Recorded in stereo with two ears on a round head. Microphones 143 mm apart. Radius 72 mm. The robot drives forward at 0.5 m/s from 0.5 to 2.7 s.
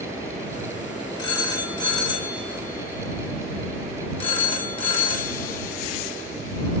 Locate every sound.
1.2 s a phone ringing: 25° left (ahead or behind), 2.5 m; by 6.8 s 40° left (ahead or behind), 1.7 m